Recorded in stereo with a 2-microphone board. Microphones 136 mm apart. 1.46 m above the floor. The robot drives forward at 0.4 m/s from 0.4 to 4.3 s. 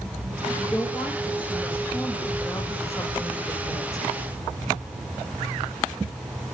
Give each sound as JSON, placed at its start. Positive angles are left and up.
{"t": 0.6, "sound": "a woman speaking", "side_deg": 10, "distance_m": 2.5}